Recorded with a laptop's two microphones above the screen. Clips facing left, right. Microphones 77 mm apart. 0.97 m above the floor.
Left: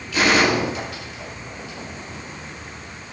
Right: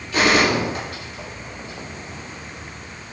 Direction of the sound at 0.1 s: 40° right (ahead or behind).